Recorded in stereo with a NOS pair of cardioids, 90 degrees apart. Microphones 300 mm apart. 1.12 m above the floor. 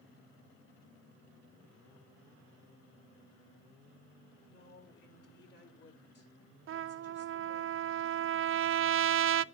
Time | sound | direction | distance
4.5 | a woman speaking | 35° left | 4.5 m
6.7 | a trumpet | 45° right | 0.5 m